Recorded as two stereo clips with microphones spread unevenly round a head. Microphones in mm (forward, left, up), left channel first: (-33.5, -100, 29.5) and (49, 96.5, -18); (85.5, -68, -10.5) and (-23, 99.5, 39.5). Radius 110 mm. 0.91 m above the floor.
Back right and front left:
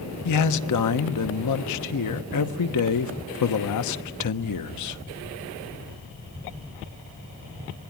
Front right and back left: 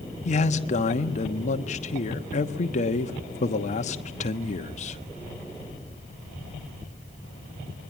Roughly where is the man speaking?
Right.